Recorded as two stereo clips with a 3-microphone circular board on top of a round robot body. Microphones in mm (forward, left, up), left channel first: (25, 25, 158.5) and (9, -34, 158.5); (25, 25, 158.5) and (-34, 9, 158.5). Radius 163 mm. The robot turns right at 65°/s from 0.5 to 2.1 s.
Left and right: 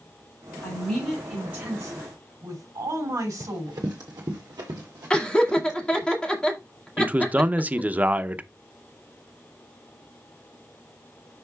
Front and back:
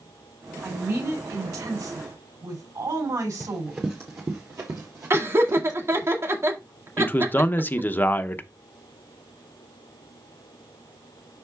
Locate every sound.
0.6 s a woman speaking: 130° left, 6 m; by 3.9 s 135° right, 6 m
3.4 s running footsteps: 85° right, 1.2 m; by 6.1 s 145° right, 2 m
5.1 s laughter: 150° left, 2.0 m
7.0 s a man speaking: 40° right, 0.7 m